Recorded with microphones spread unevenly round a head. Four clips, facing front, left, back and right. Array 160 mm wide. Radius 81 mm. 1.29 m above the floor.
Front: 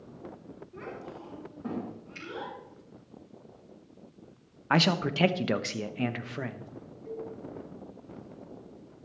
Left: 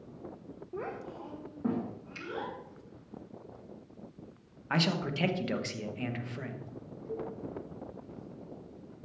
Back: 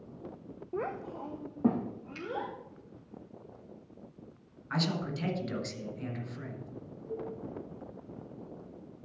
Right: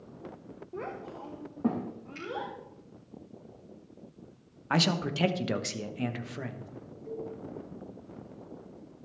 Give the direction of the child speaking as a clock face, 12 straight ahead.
6 o'clock.